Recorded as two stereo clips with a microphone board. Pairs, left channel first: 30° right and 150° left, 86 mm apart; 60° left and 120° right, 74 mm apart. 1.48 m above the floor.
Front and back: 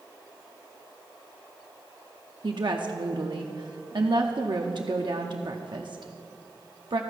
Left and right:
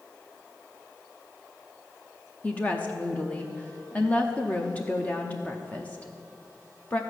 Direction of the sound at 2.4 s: 130° left.